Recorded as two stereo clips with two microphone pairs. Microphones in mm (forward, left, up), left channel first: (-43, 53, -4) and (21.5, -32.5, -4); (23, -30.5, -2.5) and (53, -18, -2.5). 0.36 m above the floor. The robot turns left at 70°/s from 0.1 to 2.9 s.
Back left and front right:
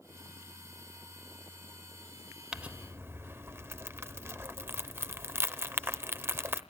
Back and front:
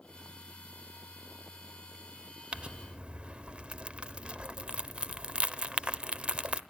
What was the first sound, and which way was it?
Crumpling, 30° left.